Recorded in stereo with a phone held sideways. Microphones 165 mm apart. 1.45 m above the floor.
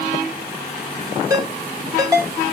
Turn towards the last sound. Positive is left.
turn(degrees=-20)  # may be behind; listen again after turning